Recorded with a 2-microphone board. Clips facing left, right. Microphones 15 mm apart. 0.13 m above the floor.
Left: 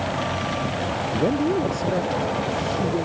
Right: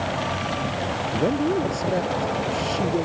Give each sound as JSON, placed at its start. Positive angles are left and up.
{"t": 1.1, "sound": "a man speaking", "side_deg": 0}